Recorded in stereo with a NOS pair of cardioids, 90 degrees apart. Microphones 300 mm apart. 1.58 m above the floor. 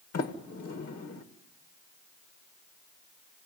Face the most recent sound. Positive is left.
turn(degrees=55)